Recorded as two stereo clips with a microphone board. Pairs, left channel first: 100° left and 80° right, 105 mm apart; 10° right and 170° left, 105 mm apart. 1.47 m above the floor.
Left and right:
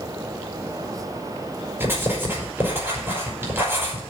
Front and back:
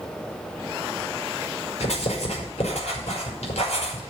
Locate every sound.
1.8 s writing: 10° right, 5 m